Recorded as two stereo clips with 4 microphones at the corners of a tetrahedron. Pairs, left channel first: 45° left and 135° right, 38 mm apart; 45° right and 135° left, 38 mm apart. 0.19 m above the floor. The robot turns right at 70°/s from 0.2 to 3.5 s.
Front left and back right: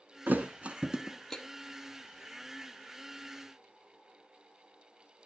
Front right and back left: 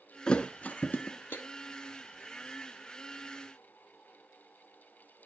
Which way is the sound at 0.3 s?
110° right.